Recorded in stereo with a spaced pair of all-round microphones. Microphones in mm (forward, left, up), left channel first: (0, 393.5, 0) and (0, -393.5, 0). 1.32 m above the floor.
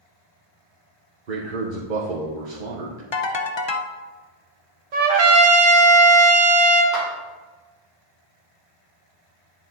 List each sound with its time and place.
1.3 s a man speaking: 80° right, 1.2 m
3.1 s a ringtone: 40° left (ahead or behind), 0.6 m
4.9 s a trumpet: 70° right (ahead or behind), 1.0 m
6.9 s a clap: 20° right (ahead or behind), 2.5 m